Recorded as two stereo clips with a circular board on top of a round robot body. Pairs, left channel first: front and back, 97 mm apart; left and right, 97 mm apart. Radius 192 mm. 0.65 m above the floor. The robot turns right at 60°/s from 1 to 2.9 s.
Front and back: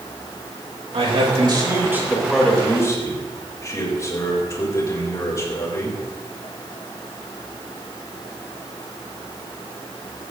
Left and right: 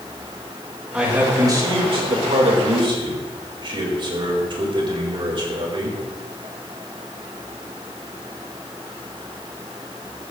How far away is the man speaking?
About 4.5 m.